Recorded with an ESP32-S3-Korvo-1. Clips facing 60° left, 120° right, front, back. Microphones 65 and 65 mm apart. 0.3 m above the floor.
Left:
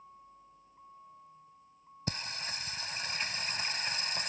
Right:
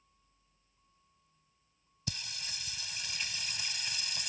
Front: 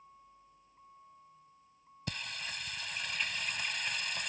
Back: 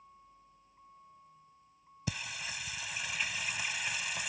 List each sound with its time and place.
0.0 s a vehicle: 90° left
2.1 s singing: 95° left